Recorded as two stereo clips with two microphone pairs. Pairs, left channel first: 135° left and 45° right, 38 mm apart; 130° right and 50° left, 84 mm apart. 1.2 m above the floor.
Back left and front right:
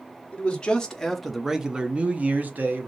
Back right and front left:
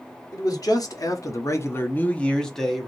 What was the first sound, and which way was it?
A man speaking, 165° right.